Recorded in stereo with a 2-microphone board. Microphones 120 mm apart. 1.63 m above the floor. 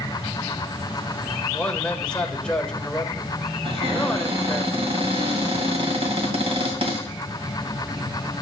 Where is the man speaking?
10° left (ahead or behind), 1.6 m.